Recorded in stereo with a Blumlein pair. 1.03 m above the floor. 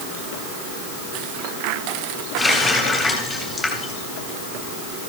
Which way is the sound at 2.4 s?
15° left.